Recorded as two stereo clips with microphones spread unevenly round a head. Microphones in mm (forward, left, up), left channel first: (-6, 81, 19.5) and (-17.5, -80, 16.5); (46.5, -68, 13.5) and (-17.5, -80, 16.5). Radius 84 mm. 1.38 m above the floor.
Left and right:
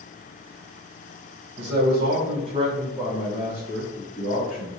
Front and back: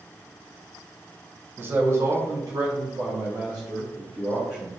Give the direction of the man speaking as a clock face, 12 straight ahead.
4 o'clock.